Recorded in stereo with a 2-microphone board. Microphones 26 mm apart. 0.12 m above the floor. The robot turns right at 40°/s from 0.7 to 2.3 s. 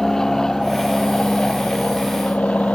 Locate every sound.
0.0 s an aircraft: 20° left (ahead or behind); by 2.8 s 60° left (ahead or behind)